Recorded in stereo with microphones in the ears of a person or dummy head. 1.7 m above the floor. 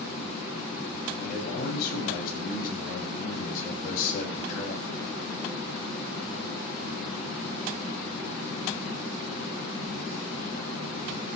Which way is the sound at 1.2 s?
60° left (ahead or behind).